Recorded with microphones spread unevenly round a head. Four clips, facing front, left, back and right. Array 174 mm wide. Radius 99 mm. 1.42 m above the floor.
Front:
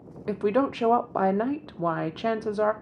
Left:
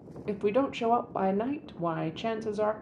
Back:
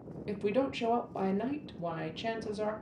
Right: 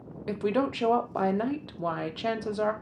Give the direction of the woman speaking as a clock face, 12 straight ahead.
12 o'clock.